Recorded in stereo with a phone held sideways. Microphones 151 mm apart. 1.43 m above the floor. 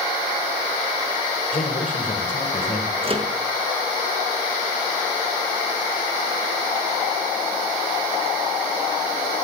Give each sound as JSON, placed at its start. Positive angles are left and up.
{"t": 1.5, "sound": "a man speaking", "side_deg": 55, "distance_m": 1.7}
{"t": 3.0, "sound": "a microwave", "side_deg": -35, "distance_m": 0.9}